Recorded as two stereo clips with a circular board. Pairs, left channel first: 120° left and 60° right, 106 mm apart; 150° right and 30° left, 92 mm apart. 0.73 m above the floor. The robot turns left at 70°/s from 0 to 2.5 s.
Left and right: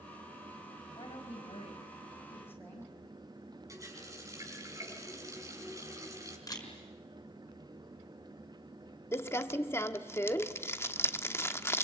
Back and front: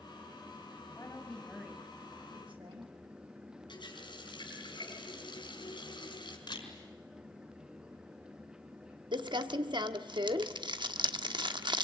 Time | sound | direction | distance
0.9 | a woman speaking | 160° left | 5.5 m
3.7 | a running tap | 120° right | 5 m
6.5 | a camera shutter | 175° left | 5 m
9.1 | crumpling | 55° left | 1.1 m